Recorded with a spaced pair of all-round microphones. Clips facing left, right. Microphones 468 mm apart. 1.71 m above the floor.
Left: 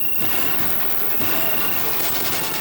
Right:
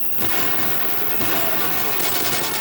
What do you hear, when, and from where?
0.0 s an insect: 25° left (ahead or behind)